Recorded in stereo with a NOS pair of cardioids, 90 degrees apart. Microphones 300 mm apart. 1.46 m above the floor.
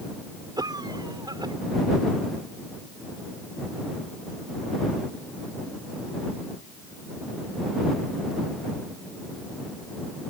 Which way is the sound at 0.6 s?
15° right.